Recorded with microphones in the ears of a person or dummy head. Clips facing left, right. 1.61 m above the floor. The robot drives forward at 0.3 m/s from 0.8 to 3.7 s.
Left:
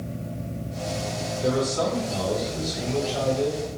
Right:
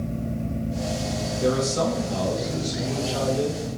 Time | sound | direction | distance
1.4 | a man speaking | 60° right (ahead or behind) | 0.9 m